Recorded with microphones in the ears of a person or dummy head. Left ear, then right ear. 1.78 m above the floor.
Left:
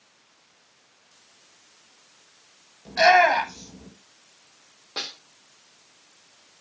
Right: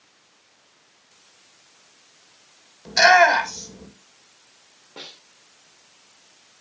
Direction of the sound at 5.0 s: 60° left (ahead or behind).